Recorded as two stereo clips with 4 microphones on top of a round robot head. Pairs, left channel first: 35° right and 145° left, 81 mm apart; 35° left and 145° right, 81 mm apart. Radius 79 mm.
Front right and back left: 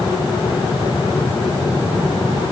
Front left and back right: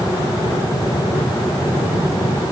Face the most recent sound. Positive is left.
No sound to turn to.